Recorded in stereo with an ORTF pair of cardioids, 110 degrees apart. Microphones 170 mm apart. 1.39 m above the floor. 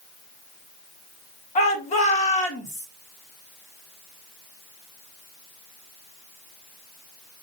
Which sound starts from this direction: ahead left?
A shout, at 1.6 s.